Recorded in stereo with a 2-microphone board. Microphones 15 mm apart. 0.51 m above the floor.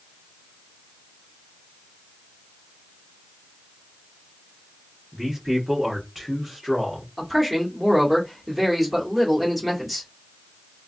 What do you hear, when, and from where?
5.1 s a man speaking: 35° right (ahead or behind), 1.1 m; by 7.1 s 25° right (ahead or behind), 1.3 m
7.2 s a man speaking: 10° right (ahead or behind), 1.3 m